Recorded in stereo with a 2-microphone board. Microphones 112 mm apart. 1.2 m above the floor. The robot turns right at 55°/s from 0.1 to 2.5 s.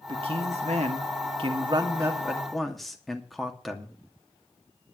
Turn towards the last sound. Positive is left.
turn(degrees=0)